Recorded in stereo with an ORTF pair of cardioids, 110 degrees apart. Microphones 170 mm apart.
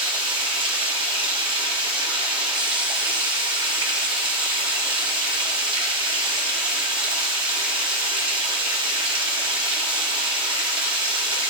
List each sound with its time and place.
0.0 s running water: 30° right, 3.5 m